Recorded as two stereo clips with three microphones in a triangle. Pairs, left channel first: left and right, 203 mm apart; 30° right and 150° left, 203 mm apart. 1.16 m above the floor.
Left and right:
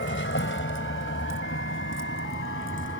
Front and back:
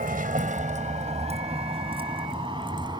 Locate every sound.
0.0 s a vehicle: 105° left; by 3.0 s 80° left